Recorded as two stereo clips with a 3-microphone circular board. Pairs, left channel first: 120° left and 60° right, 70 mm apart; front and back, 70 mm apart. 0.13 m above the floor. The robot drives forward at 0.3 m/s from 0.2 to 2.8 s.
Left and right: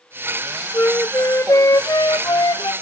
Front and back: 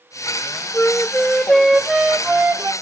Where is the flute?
65° left, 0.7 m; by 2.7 s 120° left, 0.7 m.